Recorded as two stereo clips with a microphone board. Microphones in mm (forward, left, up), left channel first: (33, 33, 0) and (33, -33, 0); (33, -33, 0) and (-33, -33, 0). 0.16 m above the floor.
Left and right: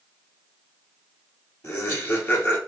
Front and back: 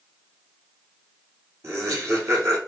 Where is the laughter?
135° left, 3 m.